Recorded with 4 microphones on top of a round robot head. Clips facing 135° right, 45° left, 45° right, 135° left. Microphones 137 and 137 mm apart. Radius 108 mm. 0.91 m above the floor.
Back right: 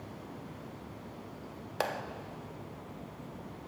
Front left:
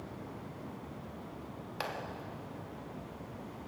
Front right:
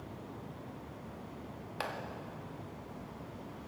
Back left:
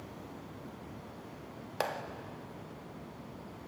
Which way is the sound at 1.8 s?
Straight behind.